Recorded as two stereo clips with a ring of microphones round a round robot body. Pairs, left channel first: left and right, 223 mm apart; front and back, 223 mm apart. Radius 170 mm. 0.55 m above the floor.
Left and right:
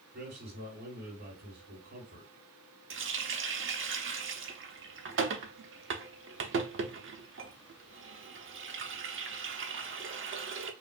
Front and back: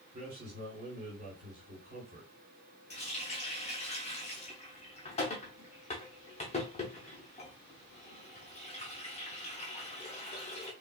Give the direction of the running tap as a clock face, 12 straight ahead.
2 o'clock.